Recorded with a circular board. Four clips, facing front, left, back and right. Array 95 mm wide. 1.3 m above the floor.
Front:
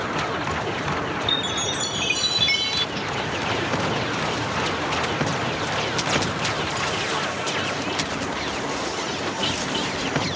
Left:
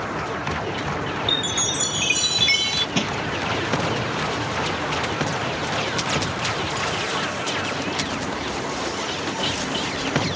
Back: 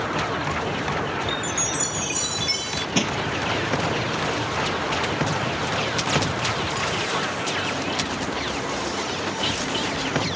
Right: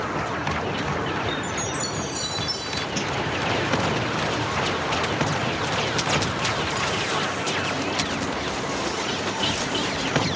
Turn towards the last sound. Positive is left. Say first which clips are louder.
# left 4 dB, back 7 dB
turn(degrees=140)